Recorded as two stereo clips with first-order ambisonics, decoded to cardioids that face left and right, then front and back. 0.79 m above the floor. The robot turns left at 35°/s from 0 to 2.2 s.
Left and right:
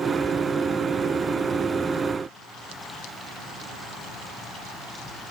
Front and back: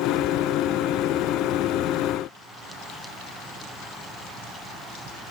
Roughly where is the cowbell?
I don't hear a cowbell.